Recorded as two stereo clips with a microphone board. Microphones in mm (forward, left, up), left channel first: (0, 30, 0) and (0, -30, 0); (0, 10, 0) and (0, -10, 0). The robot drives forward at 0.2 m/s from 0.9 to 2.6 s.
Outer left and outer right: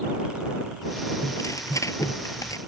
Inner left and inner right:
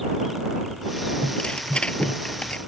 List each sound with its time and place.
1.2 s tearing paper: 60° left (ahead or behind); by 2.6 s 65° left (ahead or behind)